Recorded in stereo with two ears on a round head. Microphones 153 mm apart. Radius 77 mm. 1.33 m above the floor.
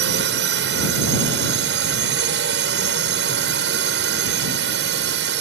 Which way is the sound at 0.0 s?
70° right (ahead or behind).